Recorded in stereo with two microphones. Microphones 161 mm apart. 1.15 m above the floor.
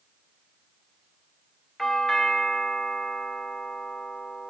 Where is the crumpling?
I don't hear crumpling.